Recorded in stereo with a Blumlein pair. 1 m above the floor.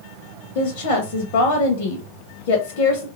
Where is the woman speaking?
50° left, 0.6 m.